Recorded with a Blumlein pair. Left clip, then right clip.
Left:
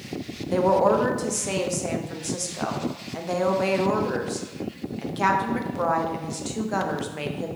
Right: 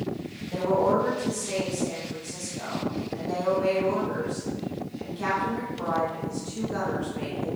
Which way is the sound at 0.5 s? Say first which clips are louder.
Left 4 dB; 60° left.